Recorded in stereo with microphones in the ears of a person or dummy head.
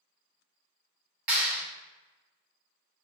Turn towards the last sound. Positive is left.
turn(degrees=-15)  # may be behind; listen again after turning